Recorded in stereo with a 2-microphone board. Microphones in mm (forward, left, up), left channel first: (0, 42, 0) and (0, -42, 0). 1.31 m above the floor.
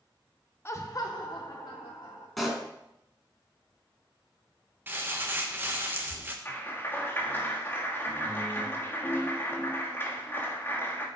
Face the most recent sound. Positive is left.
turn(degrees=20)  # may be behind; listen again after turning